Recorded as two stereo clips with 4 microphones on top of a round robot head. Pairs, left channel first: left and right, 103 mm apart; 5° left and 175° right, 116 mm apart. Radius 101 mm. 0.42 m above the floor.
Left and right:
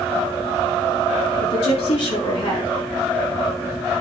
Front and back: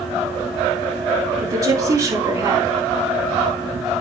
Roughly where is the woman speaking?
Behind left.